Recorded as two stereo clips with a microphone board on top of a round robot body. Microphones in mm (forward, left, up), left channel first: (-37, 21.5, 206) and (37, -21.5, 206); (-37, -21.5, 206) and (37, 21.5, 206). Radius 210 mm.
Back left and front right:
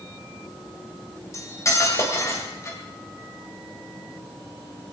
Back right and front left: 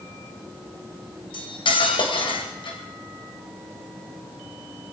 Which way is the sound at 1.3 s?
155° right.